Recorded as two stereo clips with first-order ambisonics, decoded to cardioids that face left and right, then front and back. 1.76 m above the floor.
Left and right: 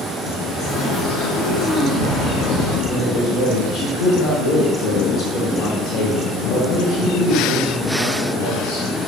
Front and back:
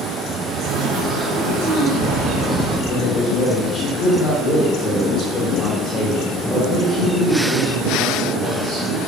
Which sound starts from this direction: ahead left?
A man speaking, at 2.9 s.